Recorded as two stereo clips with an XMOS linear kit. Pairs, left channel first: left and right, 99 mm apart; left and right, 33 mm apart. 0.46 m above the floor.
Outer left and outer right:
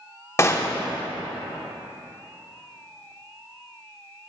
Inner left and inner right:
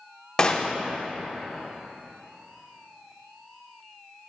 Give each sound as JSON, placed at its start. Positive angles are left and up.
{"t": 0.4, "sound": "a gunshot", "side_deg": 30, "distance_m": 0.7}